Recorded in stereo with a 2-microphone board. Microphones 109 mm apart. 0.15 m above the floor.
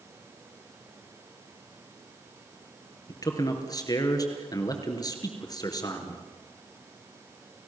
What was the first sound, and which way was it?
A man speaking, 35° left (ahead or behind).